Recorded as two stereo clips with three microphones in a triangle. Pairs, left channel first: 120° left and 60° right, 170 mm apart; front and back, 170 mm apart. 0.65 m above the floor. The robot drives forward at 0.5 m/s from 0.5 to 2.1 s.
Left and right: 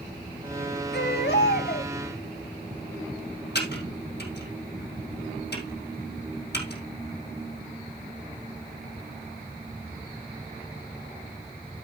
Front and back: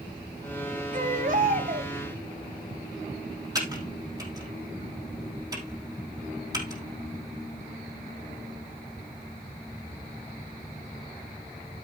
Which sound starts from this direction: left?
Typing on a keyboard, at 3.5 s.